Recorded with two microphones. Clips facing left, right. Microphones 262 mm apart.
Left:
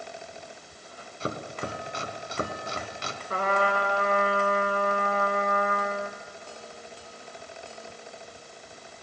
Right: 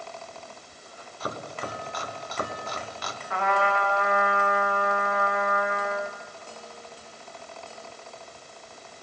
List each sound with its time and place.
1.2 s chopping: 30° left (ahead or behind), 2.0 m
3.3 s a trumpet: 40° left (ahead or behind), 4 m